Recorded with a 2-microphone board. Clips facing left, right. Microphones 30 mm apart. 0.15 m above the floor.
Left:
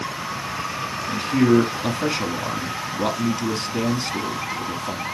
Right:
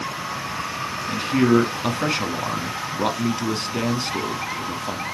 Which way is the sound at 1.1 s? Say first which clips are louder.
Even; 15° right (ahead or behind).